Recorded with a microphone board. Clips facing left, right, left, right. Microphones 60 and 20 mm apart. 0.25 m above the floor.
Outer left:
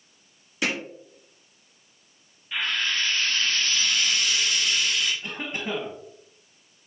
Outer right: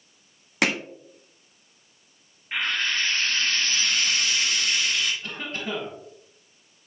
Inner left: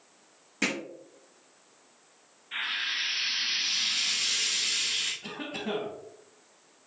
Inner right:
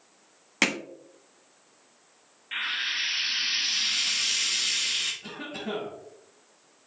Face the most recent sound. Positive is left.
turn(degrees=15)  # may be behind; listen again after turning